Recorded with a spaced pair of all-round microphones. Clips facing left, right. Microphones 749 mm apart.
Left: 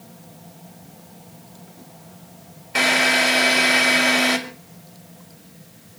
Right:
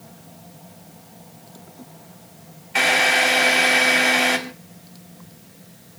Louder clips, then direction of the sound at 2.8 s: Left 1 dB; 70° left (ahead or behind).